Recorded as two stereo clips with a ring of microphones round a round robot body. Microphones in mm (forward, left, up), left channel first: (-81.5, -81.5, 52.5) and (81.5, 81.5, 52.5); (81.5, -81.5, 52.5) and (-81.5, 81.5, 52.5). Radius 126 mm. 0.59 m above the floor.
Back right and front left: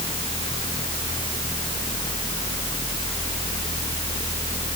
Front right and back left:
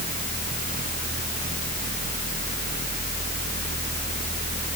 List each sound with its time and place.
Only background noise.